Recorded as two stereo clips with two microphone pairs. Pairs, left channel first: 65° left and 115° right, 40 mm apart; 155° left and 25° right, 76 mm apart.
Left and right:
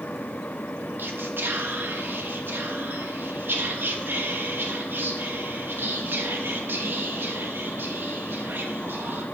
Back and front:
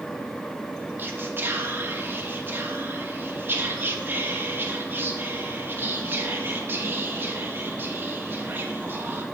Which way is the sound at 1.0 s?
85° right.